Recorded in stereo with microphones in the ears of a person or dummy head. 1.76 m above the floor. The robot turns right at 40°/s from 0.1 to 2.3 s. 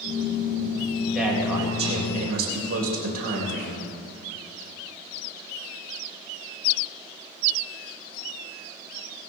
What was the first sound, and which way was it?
A man speaking, 175° right.